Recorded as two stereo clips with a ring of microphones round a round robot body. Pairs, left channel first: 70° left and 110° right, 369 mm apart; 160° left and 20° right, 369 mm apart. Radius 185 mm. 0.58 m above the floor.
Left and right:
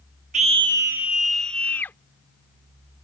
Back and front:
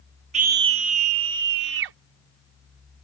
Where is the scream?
70° right; by 2.0 s 15° right.